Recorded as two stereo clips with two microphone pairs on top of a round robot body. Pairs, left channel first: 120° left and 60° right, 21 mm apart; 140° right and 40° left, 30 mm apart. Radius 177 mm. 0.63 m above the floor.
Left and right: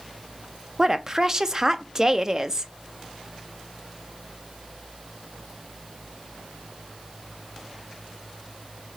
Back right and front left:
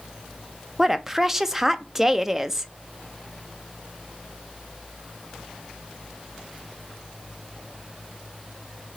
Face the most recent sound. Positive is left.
turn(degrees=0)